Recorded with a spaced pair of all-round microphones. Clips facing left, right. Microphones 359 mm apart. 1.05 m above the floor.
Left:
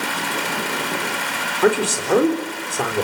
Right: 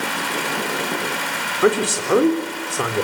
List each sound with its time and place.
1.6 s a man speaking: 5° right (ahead or behind), 4 m